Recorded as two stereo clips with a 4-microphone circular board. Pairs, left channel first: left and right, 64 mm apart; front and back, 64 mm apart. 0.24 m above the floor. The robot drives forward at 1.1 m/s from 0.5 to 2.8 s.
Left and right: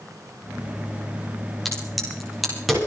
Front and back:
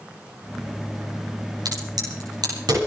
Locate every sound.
1.6 s a crack: straight behind, 7 m